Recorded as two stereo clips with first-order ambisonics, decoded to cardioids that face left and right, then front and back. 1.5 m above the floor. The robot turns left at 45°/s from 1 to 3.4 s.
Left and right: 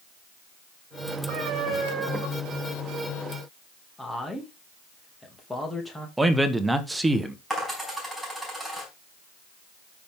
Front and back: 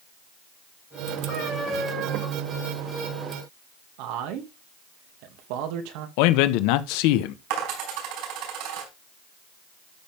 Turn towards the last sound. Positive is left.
turn(degrees=180)